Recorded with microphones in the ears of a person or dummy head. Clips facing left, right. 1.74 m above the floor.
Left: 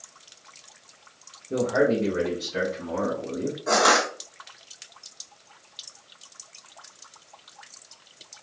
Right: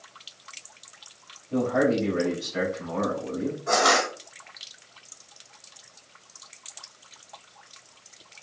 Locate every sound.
1.5 s a man speaking: 85° left, 3 m; by 3.6 s 75° left (ahead or behind), 4 m
3.7 s crushing: 50° left (ahead or behind), 3 m